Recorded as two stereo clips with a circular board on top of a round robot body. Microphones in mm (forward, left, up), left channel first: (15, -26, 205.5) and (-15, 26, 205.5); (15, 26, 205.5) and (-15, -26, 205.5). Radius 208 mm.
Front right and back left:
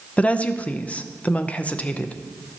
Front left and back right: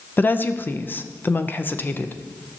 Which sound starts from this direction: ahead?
A woman speaking, at 0.2 s.